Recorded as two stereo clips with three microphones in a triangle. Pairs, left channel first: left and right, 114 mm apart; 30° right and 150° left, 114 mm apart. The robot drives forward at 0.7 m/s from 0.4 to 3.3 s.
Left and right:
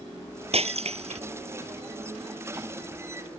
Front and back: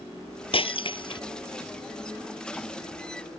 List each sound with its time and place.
0.5 s breaking glass: 65° right; by 1.2 s 75° right